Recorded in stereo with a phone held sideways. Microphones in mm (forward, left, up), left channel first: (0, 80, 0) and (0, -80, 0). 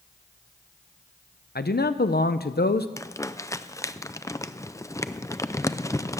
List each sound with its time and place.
1.6 s a man speaking: 80° left, 0.6 m
3.0 s crumpling: 20° left (ahead or behind), 0.5 m